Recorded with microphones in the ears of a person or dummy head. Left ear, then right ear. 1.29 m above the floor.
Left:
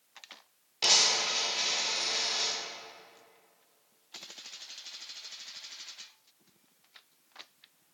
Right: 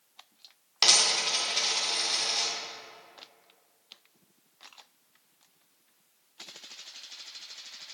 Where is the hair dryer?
No hair dryer in this recording.